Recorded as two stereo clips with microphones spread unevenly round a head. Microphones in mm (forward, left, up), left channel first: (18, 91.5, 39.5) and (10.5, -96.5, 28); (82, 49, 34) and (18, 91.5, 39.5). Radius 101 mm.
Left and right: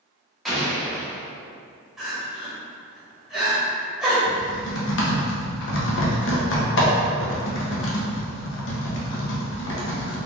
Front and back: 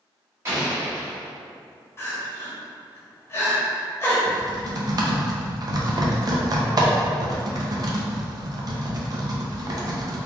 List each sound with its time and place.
0.5 s an explosion: 170° left, 0.7 m
2.0 s crying: straight ahead, 1.0 m
4.3 s typing on a keyboard: 110° left, 0.8 m